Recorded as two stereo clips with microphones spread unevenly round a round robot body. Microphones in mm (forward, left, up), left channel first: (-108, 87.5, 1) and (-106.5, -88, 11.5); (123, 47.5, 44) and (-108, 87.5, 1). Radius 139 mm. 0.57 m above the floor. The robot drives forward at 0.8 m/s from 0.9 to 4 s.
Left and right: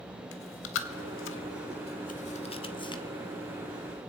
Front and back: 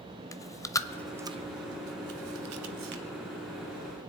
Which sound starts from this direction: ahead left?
Chewing, at 0.3 s.